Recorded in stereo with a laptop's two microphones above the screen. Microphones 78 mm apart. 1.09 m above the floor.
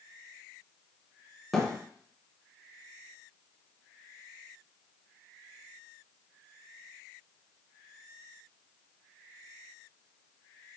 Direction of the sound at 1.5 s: Centre (ahead or behind).